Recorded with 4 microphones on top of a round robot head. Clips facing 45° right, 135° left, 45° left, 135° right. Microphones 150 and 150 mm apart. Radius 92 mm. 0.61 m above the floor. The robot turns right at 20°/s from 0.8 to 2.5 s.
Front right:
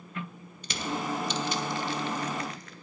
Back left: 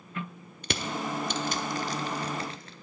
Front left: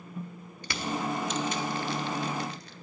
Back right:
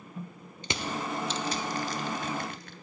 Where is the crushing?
160° left, 0.6 m; by 2.7 s 165° right, 0.6 m.